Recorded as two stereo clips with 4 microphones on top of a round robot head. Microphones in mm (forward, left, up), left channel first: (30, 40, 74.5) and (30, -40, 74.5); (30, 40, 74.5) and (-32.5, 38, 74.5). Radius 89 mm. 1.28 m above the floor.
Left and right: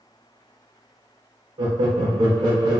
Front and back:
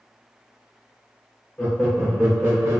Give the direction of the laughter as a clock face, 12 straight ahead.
2 o'clock.